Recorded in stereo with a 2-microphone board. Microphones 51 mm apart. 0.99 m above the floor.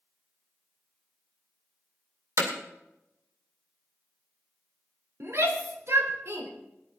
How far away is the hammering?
About 2.5 m.